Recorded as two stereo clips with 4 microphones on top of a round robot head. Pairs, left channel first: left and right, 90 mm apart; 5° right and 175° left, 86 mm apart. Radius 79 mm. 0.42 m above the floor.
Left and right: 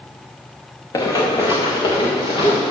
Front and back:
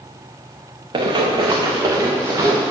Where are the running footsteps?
140° left, 2.5 m; by 2.7 s 115° left, 3 m.